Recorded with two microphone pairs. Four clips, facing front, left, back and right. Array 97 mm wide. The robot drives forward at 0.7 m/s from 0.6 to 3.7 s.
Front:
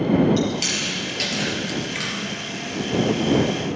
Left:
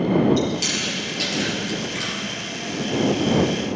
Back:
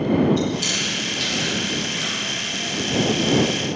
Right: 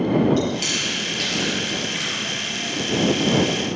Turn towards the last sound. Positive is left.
turn(degrees=-25)